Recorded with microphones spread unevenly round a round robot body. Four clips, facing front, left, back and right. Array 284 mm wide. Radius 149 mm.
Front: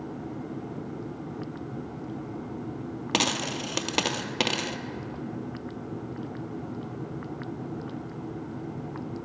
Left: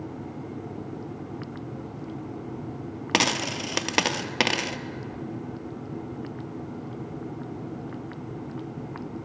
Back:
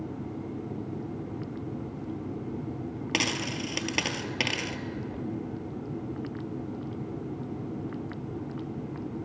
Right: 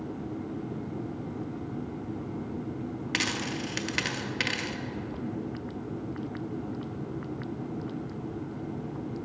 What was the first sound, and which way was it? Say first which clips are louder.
A dropped coin: left 8 dB, front 4 dB; 55° left.